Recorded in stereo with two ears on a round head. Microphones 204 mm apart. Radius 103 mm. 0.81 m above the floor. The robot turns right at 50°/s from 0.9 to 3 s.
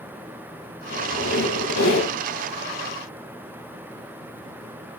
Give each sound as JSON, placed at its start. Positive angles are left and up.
{"t": 0.9, "sound": "a squeak", "azimuth_deg": 40, "distance_m": 3.5}